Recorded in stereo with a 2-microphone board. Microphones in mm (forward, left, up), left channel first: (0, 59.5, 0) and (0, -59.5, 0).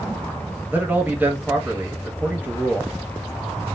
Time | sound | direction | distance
0.7 | a man speaking | 15° right (ahead or behind) | 0.7 m